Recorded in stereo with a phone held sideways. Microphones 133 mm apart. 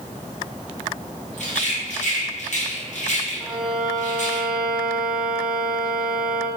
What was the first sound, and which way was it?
A rattle, 65° left (ahead or behind).